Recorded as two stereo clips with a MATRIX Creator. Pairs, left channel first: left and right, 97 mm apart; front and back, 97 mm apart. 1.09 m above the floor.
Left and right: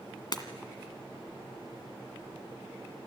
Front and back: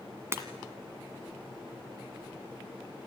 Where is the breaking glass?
120° left, 1.8 m.